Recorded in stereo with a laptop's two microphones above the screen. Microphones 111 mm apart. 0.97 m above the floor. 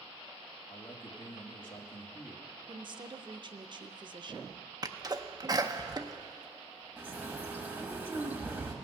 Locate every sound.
0.7 s a man speaking: 50° left (ahead or behind), 1.4 m
2.7 s a woman speaking: 45° right (ahead or behind), 0.5 m
4.8 s a sneeze: 35° right (ahead or behind), 0.5 m
7.0 s a bird: 15° right (ahead or behind), 1.0 m